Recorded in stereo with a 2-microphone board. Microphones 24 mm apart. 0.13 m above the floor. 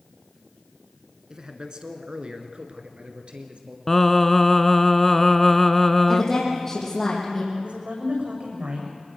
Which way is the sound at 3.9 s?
15° left (ahead or behind).